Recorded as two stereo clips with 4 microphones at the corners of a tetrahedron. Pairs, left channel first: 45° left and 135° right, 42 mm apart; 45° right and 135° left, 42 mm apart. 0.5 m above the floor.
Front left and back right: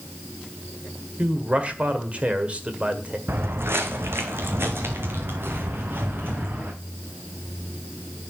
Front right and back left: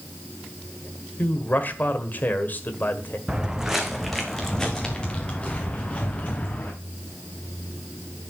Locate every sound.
1.2 s a man speaking: 80° right, 1.6 m
3.3 s footsteps: 155° right, 1.2 m; by 6.7 s 100° right, 2.5 m